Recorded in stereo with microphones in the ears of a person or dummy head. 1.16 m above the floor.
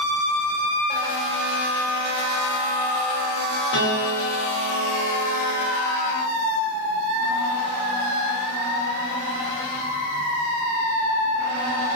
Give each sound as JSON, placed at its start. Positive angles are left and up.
{"t": 3.7, "sound": "a piano", "side_deg": 60, "distance_m": 1.8}